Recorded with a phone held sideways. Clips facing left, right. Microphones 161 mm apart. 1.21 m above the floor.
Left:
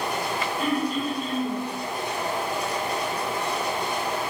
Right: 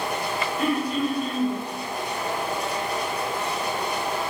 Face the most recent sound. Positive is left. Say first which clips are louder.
# right 2 dB
turn(degrees=-60)  # may be behind; listen again after turning